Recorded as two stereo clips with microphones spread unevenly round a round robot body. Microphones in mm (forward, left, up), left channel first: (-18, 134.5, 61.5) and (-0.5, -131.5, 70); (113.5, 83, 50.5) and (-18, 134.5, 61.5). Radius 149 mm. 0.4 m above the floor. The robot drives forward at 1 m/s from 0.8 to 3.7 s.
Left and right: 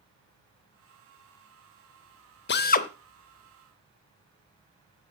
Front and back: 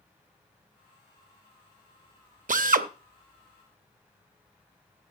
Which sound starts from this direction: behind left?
A drill, at 2.5 s.